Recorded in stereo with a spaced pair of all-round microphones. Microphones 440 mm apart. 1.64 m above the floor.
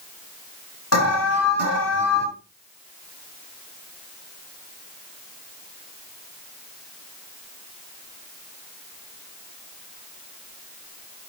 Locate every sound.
0.9 s an alarm: 35° left (ahead or behind), 7 m